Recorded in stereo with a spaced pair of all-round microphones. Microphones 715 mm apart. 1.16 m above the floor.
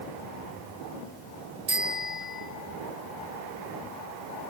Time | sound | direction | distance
1.7 | a bicycle bell | 80° right | 3.5 m